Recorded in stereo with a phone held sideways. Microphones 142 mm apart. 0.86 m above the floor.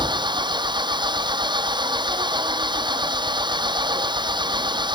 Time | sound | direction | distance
0.0 | an engine running | 30° right (ahead or behind) | ?